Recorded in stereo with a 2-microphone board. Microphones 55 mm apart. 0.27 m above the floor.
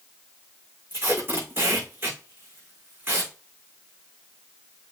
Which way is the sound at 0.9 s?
45° right (ahead or behind).